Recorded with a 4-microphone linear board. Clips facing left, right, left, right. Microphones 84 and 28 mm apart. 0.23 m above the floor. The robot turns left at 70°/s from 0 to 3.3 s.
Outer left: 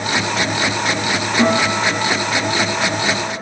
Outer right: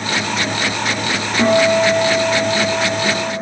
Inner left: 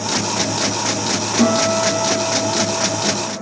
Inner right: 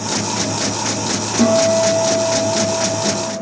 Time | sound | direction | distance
1.4 | a guitar | 155° left | 1.1 m